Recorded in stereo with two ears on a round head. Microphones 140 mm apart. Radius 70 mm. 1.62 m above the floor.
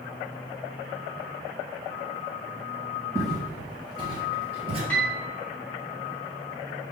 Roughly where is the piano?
Centre.